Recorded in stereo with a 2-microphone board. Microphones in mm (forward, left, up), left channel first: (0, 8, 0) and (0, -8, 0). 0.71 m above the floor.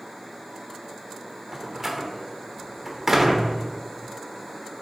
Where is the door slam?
25° right (ahead or behind), 1.3 m.